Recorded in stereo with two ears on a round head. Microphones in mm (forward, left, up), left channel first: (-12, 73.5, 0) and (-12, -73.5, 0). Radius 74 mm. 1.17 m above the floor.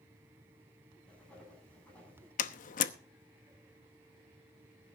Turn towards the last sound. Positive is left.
turn(degrees=55)  # may be behind; listen again after turning